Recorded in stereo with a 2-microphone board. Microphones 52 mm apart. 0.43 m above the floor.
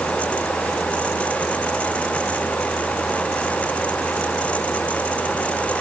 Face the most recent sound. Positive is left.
No sound to turn to.